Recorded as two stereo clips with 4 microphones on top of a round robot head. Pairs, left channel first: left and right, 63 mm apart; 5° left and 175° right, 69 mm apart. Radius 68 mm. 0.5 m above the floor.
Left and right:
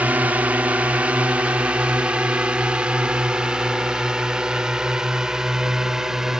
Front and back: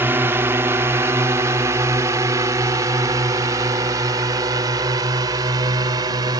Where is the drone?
140° right; by 6.4 s 175° right.